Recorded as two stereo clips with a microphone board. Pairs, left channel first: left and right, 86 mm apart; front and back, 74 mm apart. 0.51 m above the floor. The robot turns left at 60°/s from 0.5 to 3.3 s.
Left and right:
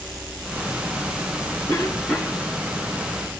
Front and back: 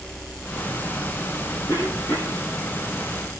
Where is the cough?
40° left, 3.5 m; by 2.4 s 10° right, 3.5 m.